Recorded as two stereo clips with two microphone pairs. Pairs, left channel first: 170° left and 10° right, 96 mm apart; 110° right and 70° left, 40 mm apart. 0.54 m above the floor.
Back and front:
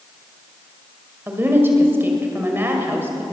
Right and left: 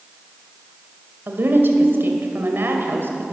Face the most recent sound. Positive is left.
turn(degrees=55)